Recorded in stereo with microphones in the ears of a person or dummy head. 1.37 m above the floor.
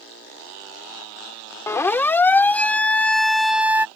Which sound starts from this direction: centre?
A siren, at 1.7 s.